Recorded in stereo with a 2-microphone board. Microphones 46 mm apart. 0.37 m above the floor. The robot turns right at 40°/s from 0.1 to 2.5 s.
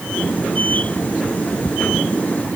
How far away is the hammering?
No hammering in this recording.